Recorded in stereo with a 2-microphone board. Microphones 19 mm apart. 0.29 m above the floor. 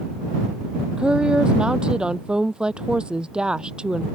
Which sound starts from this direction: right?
A woman speaking, at 1.0 s.